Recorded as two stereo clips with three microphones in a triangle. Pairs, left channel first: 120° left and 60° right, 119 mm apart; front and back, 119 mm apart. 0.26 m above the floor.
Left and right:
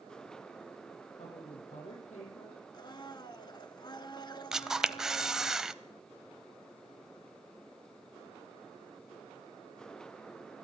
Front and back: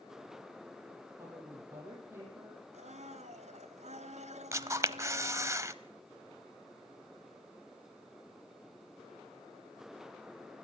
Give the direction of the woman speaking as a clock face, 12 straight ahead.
8 o'clock.